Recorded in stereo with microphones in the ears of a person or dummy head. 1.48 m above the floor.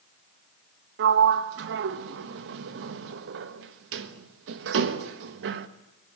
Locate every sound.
1.0 s a sliding door: 70° right (ahead or behind), 1.2 m